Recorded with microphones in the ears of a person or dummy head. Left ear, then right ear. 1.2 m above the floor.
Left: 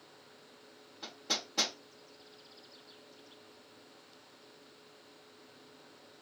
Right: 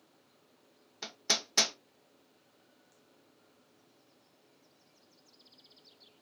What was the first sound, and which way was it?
Hammering, 70° right (ahead or behind).